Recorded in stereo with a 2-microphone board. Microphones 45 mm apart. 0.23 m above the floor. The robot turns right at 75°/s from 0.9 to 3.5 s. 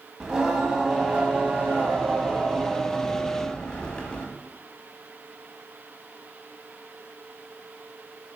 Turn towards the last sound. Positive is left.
turn(degrees=35)